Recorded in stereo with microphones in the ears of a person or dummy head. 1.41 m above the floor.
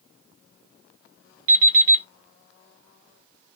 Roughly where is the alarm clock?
Right.